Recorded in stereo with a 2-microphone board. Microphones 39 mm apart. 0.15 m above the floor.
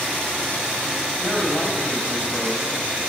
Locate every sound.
1.2 s a woman speaking: 30° left (ahead or behind), 4 m